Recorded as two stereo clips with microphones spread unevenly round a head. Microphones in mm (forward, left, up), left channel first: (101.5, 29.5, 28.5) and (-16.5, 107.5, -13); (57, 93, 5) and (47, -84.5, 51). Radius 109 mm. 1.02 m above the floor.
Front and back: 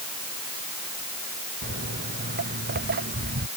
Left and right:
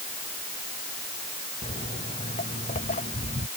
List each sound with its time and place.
1.6 s footsteps: 150° left